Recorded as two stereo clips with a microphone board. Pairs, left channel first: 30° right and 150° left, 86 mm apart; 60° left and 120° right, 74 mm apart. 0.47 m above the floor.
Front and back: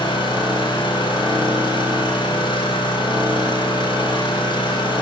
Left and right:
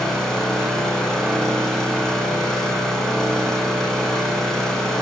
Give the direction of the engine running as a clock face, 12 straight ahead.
1 o'clock.